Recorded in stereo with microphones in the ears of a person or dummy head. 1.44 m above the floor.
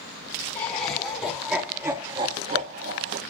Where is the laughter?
30° left (ahead or behind), 1.5 m; by 3.2 s 60° right (ahead or behind), 1.1 m.